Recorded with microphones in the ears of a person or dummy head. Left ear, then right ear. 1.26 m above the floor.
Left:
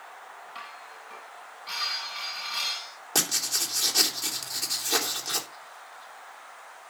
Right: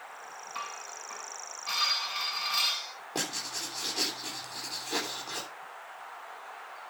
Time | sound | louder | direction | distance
0.6 | dishes clattering | right 4 dB | 15° right (ahead or behind) | 7.5 m
3.1 | writing | left 8 dB | 70° left (ahead or behind) | 3.5 m